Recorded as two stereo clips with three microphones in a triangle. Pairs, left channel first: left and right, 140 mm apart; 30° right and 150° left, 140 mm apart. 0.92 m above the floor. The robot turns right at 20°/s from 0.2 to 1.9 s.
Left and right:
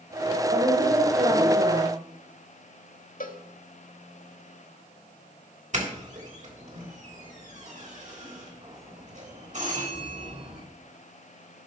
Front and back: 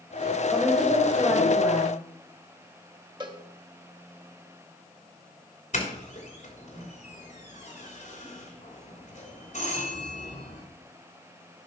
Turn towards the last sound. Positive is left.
turn(degrees=-60)